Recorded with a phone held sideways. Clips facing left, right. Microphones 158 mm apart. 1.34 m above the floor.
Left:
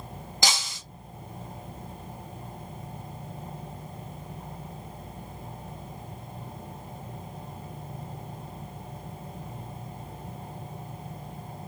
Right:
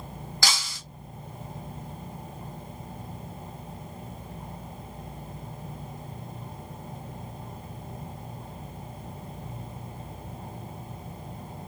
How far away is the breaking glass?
About 1.8 m.